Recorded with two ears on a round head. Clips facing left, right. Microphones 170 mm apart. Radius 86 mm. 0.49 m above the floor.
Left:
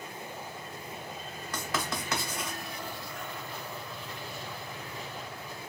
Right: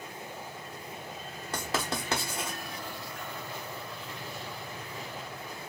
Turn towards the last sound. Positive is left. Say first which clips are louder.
# right 2 dB
turn(degrees=-25)  # may be behind; listen again after turning